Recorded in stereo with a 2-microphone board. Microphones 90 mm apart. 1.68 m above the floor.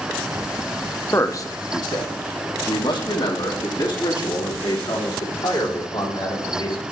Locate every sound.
1.1 s a man speaking: 30° left (ahead or behind), 0.7 m; by 6.8 s 70° left (ahead or behind), 4.5 m